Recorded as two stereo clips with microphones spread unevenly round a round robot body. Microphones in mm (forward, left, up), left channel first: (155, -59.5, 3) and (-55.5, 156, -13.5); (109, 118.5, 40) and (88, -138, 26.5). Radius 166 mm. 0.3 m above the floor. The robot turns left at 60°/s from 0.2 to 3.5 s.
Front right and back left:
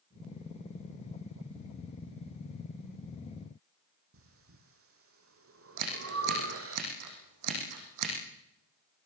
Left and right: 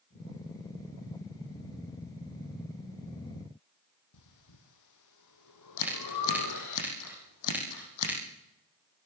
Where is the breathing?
90° left, 4 m.